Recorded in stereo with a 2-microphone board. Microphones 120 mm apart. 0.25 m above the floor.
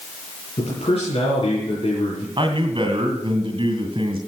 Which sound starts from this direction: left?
A man speaking, at 0.6 s.